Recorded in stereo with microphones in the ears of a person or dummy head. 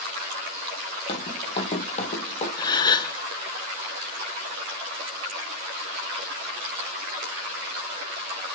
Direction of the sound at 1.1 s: 30° left (ahead or behind).